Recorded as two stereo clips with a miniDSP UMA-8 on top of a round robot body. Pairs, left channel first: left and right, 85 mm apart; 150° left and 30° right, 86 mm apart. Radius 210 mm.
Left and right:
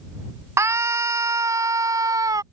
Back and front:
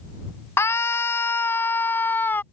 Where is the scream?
150° right; by 2.4 s 140° right.